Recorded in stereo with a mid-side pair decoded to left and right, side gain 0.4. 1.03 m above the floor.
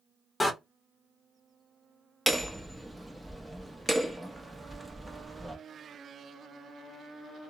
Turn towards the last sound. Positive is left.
turn(degrees=-5)